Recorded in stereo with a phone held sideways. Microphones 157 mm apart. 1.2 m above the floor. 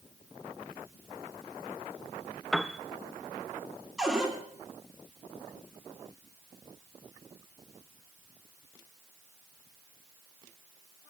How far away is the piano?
About 0.6 m.